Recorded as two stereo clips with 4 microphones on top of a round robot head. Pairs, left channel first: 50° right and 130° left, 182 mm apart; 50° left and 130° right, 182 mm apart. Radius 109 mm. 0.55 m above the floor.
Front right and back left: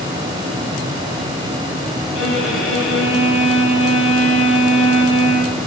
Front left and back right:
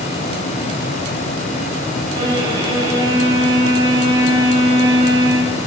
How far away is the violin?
About 4 m.